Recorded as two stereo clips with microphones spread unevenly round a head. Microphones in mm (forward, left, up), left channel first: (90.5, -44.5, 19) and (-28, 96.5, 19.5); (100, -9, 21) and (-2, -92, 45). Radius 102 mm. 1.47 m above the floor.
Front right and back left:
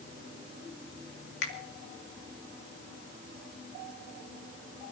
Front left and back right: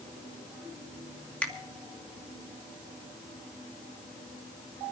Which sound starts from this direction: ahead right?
A finger snap, at 1.4 s.